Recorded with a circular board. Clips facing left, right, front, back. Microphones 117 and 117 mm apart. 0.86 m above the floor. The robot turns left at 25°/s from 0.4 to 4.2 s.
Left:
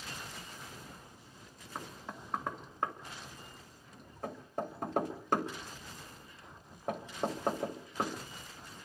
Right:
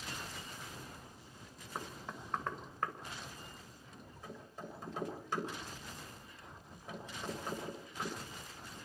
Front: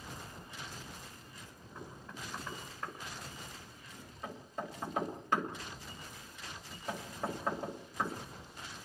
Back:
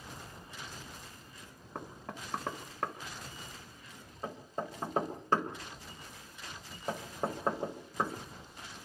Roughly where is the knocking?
Behind.